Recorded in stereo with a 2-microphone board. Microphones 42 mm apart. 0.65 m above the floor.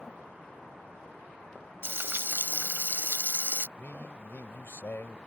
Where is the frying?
60° right (ahead or behind).